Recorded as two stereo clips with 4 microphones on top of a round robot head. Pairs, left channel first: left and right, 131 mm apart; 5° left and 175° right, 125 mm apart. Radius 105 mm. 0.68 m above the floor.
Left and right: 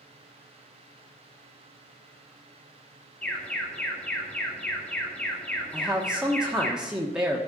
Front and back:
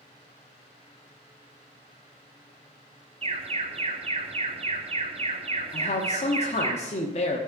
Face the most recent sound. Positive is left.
turn(degrees=-5)